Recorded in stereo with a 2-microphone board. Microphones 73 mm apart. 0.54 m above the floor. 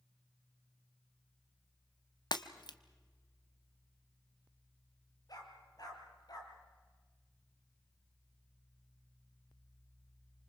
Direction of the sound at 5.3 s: 60° left (ahead or behind).